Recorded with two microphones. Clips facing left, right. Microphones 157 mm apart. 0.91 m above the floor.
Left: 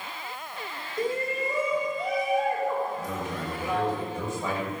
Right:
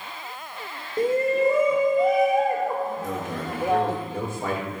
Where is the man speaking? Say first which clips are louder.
Right 3 dB; 65° right (ahead or behind), 3.5 m.